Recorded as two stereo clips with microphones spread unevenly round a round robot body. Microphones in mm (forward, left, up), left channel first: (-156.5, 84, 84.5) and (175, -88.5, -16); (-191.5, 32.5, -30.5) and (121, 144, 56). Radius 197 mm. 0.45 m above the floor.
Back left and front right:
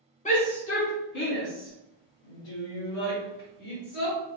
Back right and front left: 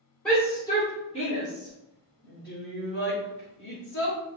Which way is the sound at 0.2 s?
130° right.